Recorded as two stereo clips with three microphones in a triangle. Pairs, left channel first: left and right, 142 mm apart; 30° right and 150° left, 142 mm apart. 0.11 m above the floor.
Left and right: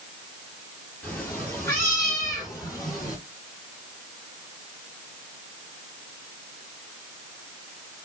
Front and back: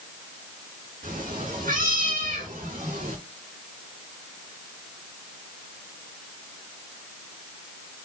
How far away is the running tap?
I don't hear a running tap.